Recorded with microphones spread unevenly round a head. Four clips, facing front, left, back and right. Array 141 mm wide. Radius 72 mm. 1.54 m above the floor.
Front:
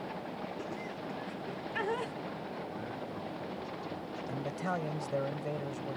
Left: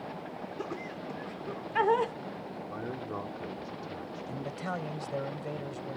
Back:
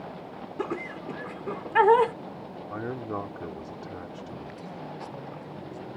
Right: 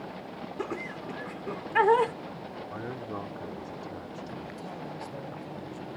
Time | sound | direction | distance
0.6 | laughter | 160° right | ?
2.7 | a man speaking | 175° right | ?
4.3 | a man speaking | 35° left | ?